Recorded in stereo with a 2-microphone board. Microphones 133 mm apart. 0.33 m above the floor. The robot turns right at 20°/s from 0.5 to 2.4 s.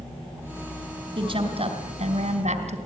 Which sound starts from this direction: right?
A woman speaking, at 1.1 s.